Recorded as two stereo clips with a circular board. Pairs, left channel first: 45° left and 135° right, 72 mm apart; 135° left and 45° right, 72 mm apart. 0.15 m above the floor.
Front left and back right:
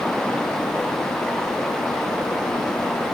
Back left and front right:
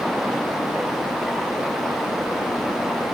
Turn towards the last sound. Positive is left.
No sound to turn to.